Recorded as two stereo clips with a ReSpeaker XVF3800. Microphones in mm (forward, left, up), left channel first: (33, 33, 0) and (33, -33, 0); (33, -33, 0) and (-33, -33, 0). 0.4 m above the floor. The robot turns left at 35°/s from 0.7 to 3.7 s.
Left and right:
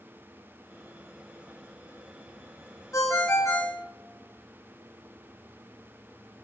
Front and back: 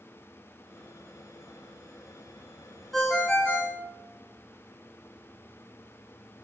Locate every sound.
2.9 s a ringtone: 85° left, 0.6 m; by 3.8 s 55° left, 0.6 m